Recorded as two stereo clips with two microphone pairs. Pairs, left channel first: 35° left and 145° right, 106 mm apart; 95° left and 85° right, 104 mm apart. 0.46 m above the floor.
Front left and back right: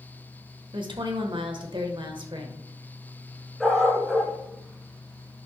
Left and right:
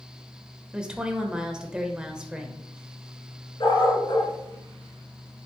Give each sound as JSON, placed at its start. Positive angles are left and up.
{"t": 0.7, "sound": "a woman speaking", "azimuth_deg": -165, "distance_m": 1.2}
{"t": 3.6, "sound": "a dog barking", "azimuth_deg": 130, "distance_m": 1.8}